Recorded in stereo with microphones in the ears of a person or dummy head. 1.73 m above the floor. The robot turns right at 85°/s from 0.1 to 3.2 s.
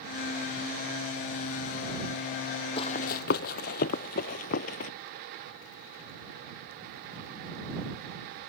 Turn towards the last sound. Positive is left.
turn(degrees=40)  # may be behind; listen again after turning